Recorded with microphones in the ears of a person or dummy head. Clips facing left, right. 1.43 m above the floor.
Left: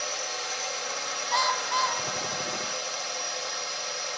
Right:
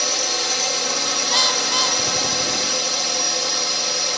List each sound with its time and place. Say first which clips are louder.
0.0 s a drone: right 9 dB; 75° right (ahead or behind)
1.3 s a bird: right 2 dB; 25° right (ahead or behind)